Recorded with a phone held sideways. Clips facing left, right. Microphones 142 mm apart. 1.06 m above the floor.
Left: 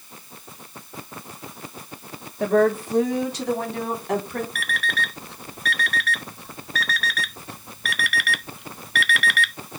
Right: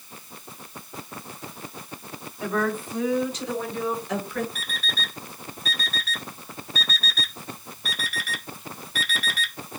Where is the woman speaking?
70° left (ahead or behind), 2.5 m; by 4.5 s 65° left (ahead or behind), 4 m.